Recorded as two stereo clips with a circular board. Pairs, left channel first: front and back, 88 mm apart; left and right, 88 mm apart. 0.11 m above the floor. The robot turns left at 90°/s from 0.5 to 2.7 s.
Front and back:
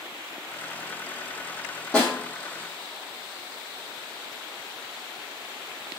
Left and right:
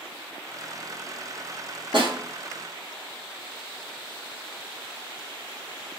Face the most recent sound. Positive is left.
turn(degrees=-145)